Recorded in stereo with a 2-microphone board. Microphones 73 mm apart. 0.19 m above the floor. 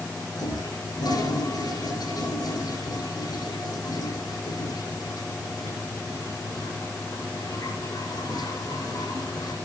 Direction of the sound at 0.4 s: 70° left (ahead or behind).